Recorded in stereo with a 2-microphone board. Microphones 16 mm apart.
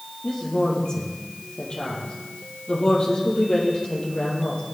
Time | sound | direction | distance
0.2 | a woman speaking | 60° left (ahead or behind) | 5 m